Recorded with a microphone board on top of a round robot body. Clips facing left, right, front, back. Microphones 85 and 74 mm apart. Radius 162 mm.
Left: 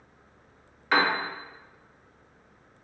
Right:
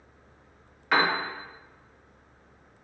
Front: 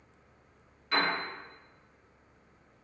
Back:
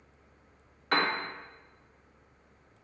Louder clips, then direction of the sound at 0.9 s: Even, back 1 dB; straight behind.